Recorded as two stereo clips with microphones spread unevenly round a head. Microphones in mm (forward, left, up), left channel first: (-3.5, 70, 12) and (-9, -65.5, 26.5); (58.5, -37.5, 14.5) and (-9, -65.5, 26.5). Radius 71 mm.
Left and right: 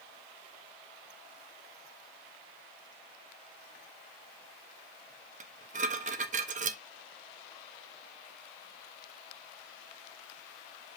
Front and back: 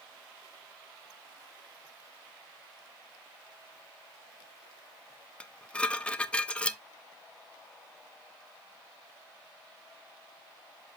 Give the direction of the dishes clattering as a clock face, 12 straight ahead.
2 o'clock.